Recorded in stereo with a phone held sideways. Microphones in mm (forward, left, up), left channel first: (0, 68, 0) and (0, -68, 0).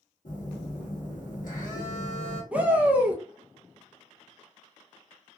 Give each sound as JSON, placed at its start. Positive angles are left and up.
{"t": 0.2, "sound": "a phone buzzing", "side_deg": 75, "distance_m": 1.3}
{"t": 2.5, "sound": "a shout", "side_deg": -10, "distance_m": 0.5}